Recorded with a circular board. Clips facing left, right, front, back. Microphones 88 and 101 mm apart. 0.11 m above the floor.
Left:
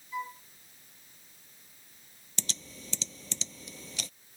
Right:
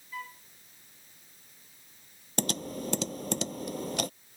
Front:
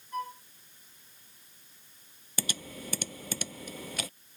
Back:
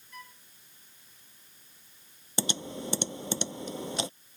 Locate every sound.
0.1 s a flute: 25° left
2.4 s typing on a keyboard: 115° right